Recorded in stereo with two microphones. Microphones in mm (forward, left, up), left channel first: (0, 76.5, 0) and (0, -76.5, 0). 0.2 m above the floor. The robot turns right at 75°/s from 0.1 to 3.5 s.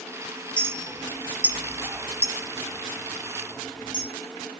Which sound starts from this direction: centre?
A clink, at 0.6 s.